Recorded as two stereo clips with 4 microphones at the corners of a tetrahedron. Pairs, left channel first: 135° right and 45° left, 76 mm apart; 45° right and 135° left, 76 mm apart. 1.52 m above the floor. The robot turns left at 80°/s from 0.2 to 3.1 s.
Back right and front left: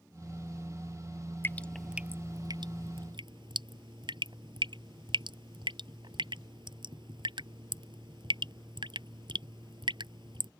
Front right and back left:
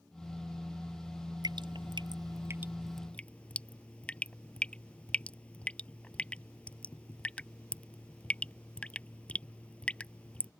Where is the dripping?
165° left; by 10.5 s 30° left.